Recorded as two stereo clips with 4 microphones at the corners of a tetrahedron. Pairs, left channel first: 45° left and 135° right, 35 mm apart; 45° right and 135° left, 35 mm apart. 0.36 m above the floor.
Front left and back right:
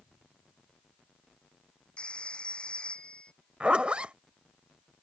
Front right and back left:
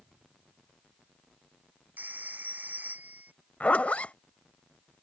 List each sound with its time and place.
2.0 s a phone ringing: 100° left
3.6 s a zipper: 85° right